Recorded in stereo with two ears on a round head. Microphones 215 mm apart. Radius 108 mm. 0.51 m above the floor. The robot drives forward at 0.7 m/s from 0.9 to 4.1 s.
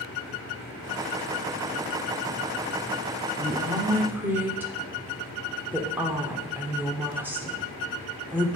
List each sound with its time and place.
3.4 s a woman speaking: 10° right (ahead or behind), 1.0 m